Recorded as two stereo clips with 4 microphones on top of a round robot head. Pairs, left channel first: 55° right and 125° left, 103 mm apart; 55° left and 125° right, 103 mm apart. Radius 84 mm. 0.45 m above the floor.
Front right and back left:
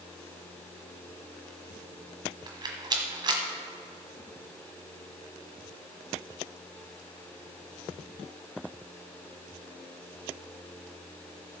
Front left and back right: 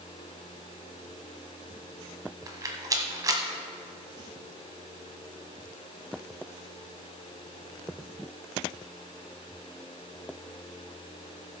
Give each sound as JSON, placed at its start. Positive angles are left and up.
{"t": 2.5, "sound": "a rattle", "azimuth_deg": 175, "distance_m": 1.3}